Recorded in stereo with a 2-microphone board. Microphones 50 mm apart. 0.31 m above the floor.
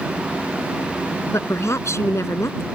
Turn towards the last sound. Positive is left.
turn(degrees=70)  # may be behind; listen again after turning